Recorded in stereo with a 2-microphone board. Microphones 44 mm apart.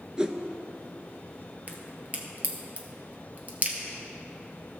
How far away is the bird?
I don't hear a bird.